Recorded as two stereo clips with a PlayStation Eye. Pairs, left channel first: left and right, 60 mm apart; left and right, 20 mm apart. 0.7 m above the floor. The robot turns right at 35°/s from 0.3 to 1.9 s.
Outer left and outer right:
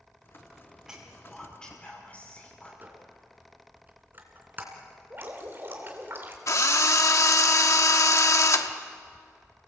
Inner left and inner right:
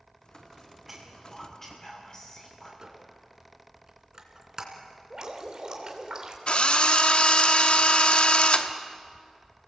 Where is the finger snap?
I don't hear a finger snap.